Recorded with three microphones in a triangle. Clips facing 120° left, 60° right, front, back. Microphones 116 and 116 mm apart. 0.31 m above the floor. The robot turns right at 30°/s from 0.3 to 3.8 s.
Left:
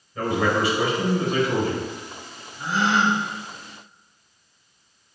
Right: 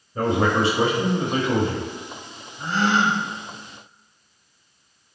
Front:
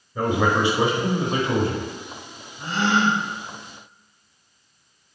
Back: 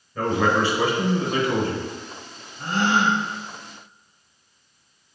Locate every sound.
0.1 s a man speaking: 65° right, 0.9 m; by 1.9 s 15° right, 0.9 m
2.6 s a gasp: 160° right, 0.7 m; by 3.2 s 145° right, 0.7 m